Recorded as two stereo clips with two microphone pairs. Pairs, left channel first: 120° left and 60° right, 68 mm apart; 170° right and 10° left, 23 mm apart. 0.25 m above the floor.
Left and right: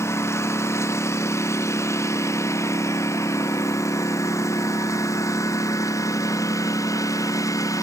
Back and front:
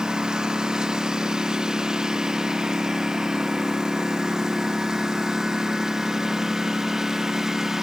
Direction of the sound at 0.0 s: 70° left.